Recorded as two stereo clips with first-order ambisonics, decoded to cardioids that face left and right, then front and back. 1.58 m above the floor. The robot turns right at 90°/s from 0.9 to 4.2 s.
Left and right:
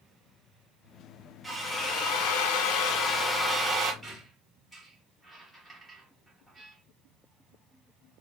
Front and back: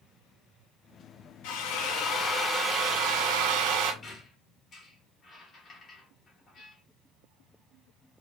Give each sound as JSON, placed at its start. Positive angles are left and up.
{"t": 1.4, "sound": "a drill", "azimuth_deg": -5, "distance_m": 1.4}
{"t": 4.0, "sound": "a squeak", "azimuth_deg": 0, "distance_m": 1.3}